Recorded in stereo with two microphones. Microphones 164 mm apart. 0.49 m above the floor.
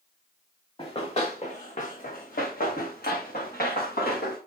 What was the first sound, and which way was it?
Running footsteps, 35° left (ahead or behind).